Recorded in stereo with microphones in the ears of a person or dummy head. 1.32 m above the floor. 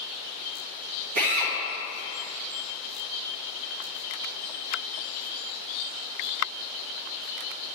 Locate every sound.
1.1 s a drill: 60° right (ahead or behind), 1.5 m